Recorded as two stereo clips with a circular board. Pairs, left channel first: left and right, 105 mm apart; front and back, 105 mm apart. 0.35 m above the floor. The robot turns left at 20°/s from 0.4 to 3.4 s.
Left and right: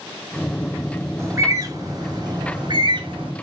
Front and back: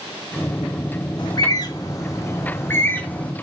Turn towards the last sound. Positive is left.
turn(degrees=-75)